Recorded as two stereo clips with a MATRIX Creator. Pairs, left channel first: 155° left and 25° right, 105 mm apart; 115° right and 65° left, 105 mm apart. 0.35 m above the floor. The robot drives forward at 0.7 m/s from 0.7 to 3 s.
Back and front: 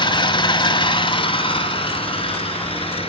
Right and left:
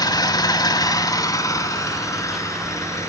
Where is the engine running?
165° right, 1.0 m; by 3.1 s 175° right, 2.5 m.